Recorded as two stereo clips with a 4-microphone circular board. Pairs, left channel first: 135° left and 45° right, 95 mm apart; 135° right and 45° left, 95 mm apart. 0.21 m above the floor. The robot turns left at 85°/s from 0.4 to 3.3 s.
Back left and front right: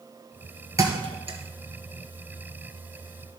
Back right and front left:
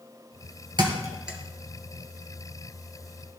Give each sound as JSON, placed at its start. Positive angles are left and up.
{"t": 0.8, "sound": "a thud", "azimuth_deg": 10, "distance_m": 1.3}